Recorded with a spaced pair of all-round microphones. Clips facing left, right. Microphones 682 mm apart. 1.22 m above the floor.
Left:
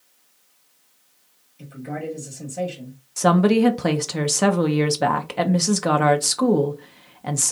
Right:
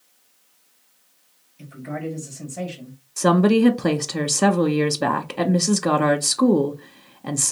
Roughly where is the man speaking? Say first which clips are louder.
Even; centre.